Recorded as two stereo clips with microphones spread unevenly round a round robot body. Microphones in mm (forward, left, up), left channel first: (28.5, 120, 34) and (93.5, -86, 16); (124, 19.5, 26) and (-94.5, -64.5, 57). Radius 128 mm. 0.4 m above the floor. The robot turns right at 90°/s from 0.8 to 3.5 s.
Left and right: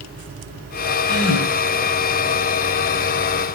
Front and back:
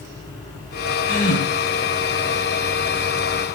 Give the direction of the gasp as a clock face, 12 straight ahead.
10 o'clock.